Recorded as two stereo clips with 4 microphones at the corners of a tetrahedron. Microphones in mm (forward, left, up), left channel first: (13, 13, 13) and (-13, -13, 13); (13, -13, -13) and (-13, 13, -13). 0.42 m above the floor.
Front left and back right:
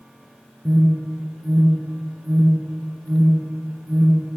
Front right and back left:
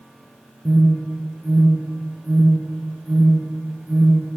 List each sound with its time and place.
0.7 s an alarm: straight behind, 9 m